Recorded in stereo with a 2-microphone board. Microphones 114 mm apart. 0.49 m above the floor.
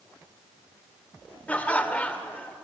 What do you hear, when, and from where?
1.5 s laughter: 15° left (ahead or behind), 1.8 m